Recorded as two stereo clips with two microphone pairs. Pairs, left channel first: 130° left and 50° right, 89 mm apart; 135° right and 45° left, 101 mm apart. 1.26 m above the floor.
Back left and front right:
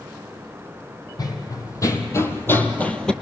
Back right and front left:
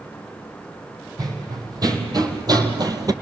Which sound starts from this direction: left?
Running footsteps, at 1.2 s.